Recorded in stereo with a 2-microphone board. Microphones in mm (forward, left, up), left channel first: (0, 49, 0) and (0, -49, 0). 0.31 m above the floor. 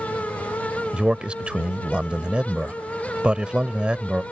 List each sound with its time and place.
0.9 s a man speaking: 10° right (ahead or behind)